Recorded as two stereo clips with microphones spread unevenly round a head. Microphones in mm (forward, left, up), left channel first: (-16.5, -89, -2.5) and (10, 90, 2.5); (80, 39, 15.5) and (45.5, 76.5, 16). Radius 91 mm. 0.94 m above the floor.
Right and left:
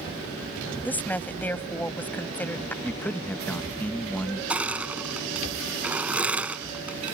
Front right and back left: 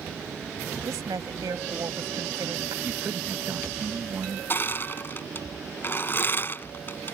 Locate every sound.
0.8 s a woman speaking: straight behind
2.8 s a man speaking: straight behind
4.5 s crushing: straight ahead